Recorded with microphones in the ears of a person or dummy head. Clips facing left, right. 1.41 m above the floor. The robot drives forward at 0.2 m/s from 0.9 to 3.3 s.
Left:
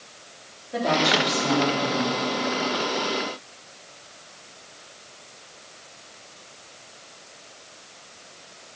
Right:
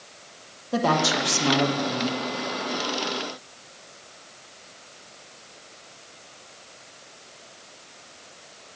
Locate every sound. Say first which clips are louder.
0.7 s a woman speaking: even; 80° right, 1.5 m; by 2.2 s 70° right (ahead or behind), 1.6 m